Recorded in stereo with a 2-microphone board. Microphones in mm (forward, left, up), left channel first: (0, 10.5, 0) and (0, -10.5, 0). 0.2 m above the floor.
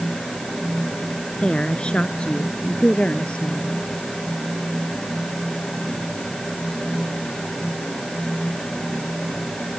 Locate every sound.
1.4 s a woman speaking: 55° left (ahead or behind); by 3.8 s 75° left (ahead or behind)